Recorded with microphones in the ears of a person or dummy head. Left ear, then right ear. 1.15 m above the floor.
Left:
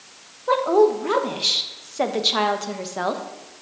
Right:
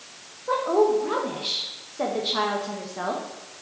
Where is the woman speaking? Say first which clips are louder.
Left 4 dB; 75° left (ahead or behind), 1.1 m.